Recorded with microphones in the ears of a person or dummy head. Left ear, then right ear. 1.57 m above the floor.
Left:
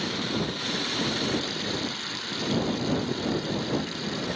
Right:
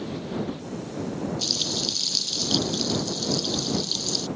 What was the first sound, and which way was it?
Frying, 80° right.